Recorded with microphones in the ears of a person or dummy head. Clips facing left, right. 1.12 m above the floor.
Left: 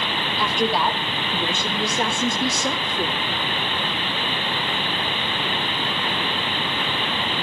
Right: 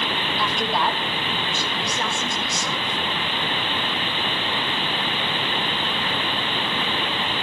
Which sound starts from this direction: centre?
A woman speaking, at 0.4 s.